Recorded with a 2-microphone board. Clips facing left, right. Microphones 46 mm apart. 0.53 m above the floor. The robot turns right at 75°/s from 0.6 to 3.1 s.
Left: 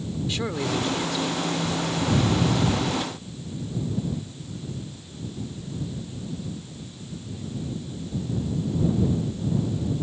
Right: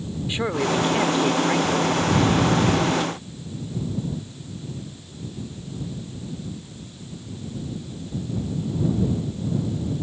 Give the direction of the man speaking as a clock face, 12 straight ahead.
5 o'clock.